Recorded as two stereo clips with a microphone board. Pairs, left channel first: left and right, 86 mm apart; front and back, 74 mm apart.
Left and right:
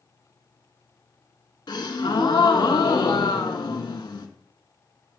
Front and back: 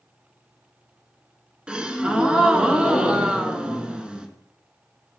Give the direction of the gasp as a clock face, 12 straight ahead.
9 o'clock.